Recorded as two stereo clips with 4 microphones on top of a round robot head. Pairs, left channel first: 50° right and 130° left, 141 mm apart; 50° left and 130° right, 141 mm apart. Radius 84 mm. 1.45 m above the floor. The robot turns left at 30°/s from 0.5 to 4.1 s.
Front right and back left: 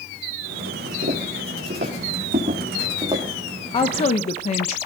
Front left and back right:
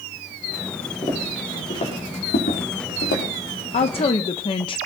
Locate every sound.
1.0 s footsteps: 120° left, 6 m; by 3.2 s 60° left, 5 m
3.7 s a woman speaking: 5° left, 0.7 m; by 4.8 s 5° right, 0.7 m